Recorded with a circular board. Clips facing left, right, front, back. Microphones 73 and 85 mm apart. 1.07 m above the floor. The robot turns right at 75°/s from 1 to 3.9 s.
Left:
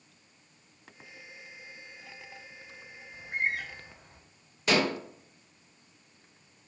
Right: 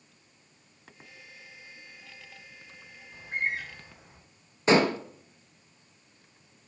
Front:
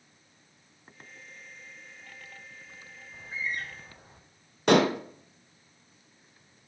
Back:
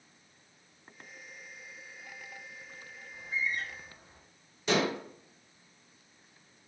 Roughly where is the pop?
I don't hear a pop.